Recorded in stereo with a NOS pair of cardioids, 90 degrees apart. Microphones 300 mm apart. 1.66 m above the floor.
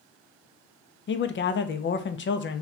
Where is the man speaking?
40° left, 0.6 m.